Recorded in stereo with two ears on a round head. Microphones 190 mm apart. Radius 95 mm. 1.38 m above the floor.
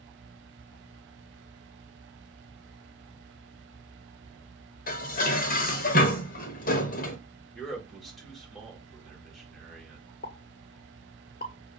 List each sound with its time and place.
4.9 s dishes clattering: 40° left (ahead or behind), 0.8 m
7.5 s a man speaking: centre (ahead or behind), 1.5 m
10.2 s a pop: 45° left (ahead or behind), 0.9 m